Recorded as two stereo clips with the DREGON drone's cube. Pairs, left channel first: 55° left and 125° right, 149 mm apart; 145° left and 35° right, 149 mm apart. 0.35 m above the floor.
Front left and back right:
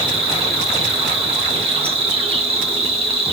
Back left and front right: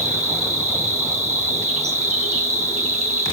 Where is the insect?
75° right, 1.7 m.